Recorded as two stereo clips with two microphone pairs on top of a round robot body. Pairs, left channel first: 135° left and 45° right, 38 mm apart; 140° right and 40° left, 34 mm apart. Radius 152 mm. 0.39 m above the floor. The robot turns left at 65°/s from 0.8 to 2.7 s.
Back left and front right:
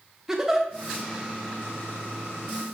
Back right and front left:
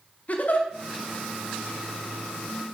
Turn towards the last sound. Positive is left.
turn(degrees=125)